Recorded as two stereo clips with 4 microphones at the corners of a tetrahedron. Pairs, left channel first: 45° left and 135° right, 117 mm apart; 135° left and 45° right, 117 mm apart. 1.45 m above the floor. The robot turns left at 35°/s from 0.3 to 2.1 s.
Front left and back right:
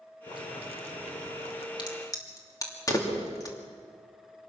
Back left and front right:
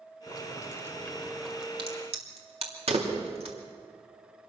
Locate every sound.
0.3 s boiling: 85° left, 2 m; by 1.7 s 35° left, 2 m
1.8 s a crack: 5° right, 3 m; by 3.5 s 15° right, 3 m